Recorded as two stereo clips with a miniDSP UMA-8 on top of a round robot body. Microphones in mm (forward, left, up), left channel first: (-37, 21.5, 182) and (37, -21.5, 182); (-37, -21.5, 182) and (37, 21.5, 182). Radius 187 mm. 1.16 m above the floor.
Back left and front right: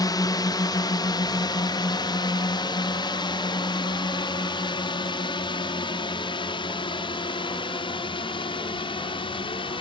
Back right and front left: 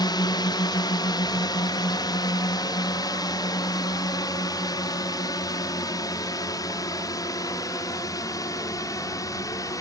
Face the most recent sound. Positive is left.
turn(degrees=160)